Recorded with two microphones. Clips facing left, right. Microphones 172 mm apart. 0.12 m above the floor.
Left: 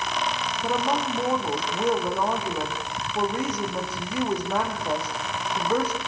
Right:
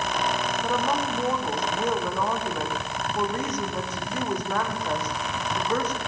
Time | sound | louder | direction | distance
0.6 | a woman speaking | left 3 dB | 10° left (ahead or behind) | 6 m